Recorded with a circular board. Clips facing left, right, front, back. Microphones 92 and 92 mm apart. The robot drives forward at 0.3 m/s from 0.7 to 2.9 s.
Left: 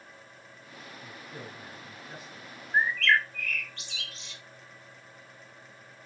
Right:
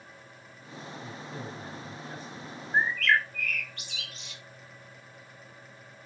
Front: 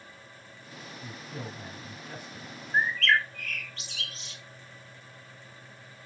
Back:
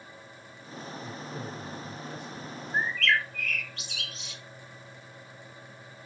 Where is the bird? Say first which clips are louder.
Even, front 2 dB; 15° right, 1.3 m.